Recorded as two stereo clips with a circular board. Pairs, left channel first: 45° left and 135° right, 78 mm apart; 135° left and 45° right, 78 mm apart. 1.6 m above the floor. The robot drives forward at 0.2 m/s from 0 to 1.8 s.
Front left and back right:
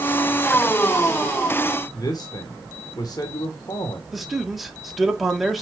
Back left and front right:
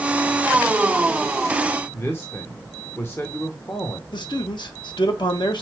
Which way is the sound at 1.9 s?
80° left.